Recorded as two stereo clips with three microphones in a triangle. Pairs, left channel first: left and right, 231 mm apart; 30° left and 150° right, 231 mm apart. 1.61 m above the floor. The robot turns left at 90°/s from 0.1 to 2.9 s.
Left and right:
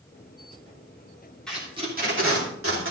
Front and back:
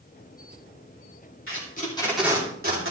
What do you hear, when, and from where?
1.5 s tape being pulled: 5° left, 3 m; by 2.9 s 125° right, 3 m